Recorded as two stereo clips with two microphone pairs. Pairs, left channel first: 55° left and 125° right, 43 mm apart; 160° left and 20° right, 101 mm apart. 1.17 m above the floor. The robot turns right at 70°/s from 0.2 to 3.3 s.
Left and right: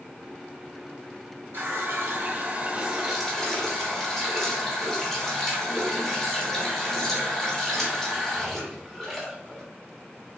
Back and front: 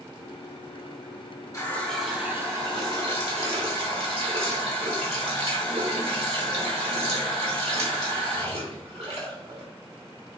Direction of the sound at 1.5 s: 145° right.